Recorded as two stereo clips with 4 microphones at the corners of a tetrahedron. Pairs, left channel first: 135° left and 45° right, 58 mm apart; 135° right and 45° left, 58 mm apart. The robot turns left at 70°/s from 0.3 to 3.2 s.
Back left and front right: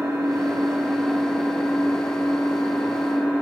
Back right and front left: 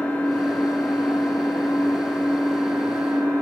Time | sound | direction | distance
0.0 | an engine running | 70° right | 4.5 m